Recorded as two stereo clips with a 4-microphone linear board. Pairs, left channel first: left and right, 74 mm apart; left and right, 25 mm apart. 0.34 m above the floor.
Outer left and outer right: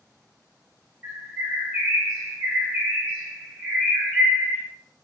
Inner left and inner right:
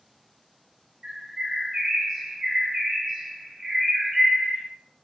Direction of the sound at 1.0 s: 15° right (ahead or behind).